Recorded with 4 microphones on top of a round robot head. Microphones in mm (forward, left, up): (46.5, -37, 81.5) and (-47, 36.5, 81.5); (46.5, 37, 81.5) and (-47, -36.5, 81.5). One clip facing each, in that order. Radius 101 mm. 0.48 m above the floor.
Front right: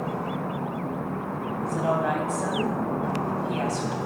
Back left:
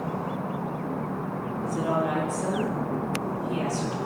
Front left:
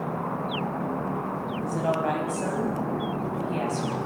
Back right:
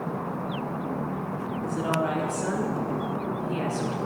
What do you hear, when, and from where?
1.6 s a woman speaking: 10° right, 3 m